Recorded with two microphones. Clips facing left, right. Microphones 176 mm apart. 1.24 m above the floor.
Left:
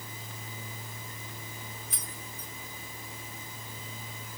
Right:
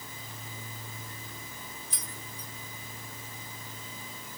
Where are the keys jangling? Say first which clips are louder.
Even; 55° left (ahead or behind), 1.6 m.